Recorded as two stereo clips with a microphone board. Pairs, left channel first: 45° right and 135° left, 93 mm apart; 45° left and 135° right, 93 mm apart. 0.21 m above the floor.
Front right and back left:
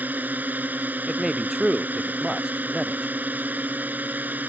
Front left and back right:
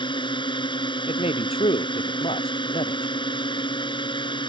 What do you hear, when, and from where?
0.0 s a drone: 65° left
1.1 s a man speaking: 50° left